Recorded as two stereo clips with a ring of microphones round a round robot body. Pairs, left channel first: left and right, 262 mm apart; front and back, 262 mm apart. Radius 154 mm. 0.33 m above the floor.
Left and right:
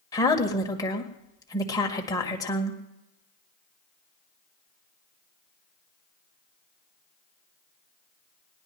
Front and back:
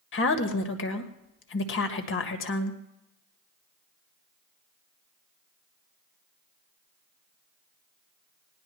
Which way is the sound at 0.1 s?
15° left.